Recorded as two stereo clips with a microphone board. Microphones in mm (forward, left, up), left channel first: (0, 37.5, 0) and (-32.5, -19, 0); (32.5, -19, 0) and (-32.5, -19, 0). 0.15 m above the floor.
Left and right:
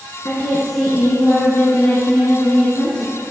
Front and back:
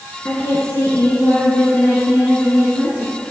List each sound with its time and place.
0.2 s a woman speaking: 50° left, 1.5 m; by 3.1 s 45° left, 3 m